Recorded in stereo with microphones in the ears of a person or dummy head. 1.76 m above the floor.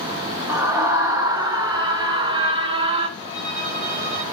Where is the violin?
75° right (ahead or behind), 3 m.